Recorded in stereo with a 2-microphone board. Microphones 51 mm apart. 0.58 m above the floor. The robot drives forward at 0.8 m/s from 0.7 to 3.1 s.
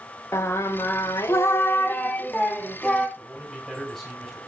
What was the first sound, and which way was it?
Singing, 55° left (ahead or behind).